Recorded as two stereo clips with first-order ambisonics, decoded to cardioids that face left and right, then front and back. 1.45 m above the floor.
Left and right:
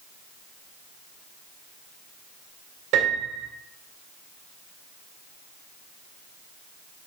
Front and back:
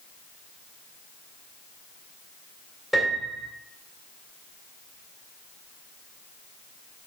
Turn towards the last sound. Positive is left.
turn(degrees=-100)